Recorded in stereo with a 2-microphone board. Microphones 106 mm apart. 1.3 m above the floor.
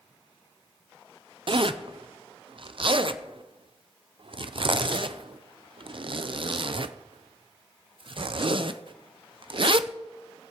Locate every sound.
1.5 s a zipper: 55° right (ahead or behind), 0.5 m